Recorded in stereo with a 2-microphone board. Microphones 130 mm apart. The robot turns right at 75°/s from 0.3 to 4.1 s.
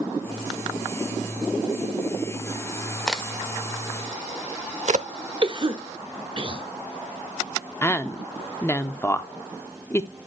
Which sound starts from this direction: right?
A cough, at 5.4 s.